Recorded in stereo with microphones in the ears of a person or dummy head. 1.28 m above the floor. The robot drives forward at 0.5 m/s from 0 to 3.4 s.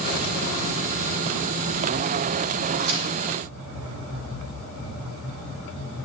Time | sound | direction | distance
2.8 | a crack | 70° right (ahead or behind) | 3.5 m